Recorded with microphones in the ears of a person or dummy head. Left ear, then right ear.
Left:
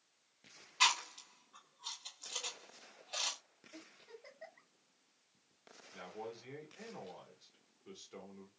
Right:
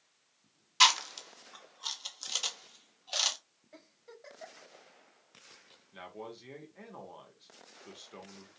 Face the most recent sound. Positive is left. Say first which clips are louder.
# right 2 dB
turn(degrees=-20)  # may be behind; listen again after turning